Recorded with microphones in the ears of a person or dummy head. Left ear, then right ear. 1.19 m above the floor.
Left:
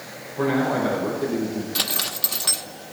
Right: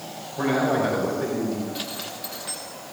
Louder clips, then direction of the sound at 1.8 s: Left 7 dB; 40° left (ahead or behind).